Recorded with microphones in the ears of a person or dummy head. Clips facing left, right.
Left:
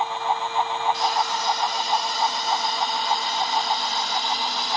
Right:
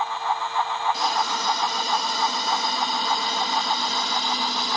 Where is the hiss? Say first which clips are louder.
Left 1 dB; 65° right (ahead or behind), 1.6 m.